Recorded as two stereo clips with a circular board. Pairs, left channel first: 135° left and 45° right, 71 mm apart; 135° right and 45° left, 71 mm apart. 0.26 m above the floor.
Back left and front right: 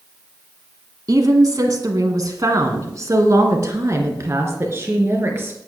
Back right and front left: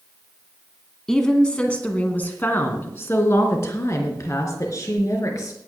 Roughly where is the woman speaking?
Ahead right.